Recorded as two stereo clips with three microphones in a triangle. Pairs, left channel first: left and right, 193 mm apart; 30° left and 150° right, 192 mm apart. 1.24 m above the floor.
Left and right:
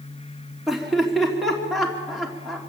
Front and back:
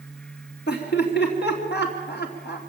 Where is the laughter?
Straight ahead, 3 m.